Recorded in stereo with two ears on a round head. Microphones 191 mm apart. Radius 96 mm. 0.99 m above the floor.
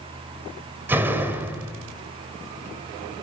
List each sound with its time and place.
0.9 s a door slam: 10° right (ahead or behind), 3 m